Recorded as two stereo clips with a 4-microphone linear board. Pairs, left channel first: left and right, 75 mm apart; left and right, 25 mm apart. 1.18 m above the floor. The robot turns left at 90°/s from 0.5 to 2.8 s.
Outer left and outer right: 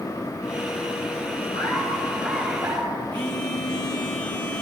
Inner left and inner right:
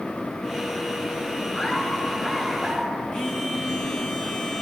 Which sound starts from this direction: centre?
A phone buzzing, at 3.1 s.